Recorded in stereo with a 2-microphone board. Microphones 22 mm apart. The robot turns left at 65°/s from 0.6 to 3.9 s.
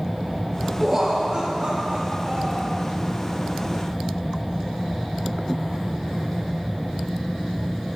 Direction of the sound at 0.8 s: 5° right.